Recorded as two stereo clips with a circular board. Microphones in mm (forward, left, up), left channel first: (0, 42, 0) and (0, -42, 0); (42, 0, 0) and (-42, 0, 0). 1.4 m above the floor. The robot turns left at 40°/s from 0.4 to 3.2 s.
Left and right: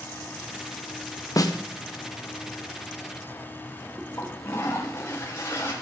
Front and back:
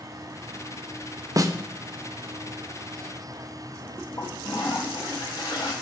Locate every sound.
1.4 s a snare drum: 135° left, 0.7 m; by 1.5 s 130° left, 0.7 m
4.2 s a toilet flushing: 35° left, 2.5 m